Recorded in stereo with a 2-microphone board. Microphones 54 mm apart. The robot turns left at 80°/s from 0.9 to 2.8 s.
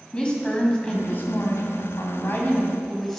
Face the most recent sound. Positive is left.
turn(degrees=5)